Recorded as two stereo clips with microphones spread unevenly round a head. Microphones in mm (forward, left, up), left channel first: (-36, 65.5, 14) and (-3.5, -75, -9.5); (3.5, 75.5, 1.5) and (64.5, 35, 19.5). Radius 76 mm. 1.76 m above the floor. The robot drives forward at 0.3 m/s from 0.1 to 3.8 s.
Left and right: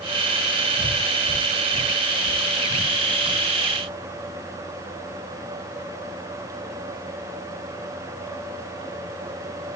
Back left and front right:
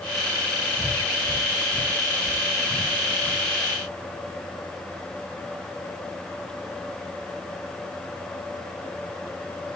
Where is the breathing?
95° right, 3.5 m; by 3.5 s 110° right, 3.5 m.